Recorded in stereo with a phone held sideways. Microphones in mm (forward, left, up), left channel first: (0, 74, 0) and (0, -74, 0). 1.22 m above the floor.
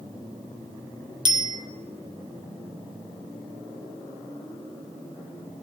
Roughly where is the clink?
No clink in this recording.